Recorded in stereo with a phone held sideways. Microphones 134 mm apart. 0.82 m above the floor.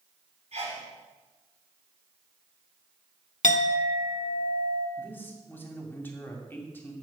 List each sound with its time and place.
0.5 s a sneeze: 55° right (ahead or behind), 6.5 m
3.4 s a clink: 85° left, 0.8 m
5.0 s a man speaking: 15° left (ahead or behind), 2.5 m